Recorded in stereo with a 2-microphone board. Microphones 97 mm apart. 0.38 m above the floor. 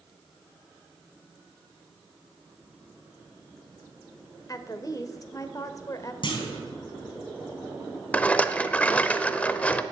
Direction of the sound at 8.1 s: 15° left (ahead or behind).